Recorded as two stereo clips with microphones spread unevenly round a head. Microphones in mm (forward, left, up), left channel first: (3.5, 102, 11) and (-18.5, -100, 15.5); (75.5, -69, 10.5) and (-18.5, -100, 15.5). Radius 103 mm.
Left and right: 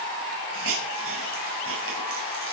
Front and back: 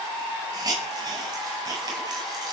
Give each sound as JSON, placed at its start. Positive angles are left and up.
{"t": 0.5, "sound": "a hiss", "azimuth_deg": -115, "distance_m": 8.5}